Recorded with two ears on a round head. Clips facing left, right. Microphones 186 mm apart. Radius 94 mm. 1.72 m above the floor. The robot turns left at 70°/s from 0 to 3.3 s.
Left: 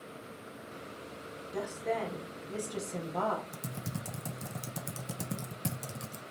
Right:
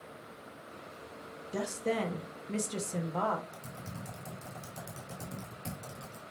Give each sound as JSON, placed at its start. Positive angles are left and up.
{"t": 1.5, "sound": "a woman speaking", "azimuth_deg": -65, "distance_m": 0.8}
{"t": 3.5, "sound": "typing on a keyboard", "side_deg": 65, "distance_m": 0.7}